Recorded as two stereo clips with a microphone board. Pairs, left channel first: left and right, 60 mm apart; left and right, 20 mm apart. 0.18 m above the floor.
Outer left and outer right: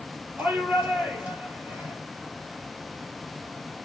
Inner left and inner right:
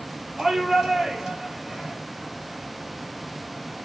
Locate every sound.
0.4 s a shout: 40° right (ahead or behind), 4.5 m